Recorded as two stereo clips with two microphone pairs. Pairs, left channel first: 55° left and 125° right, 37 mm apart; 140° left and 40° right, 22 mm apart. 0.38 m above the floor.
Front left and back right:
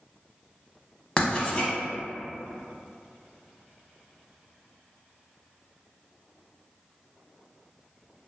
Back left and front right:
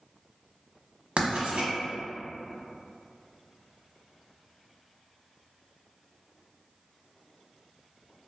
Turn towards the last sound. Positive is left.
turn(degrees=-5)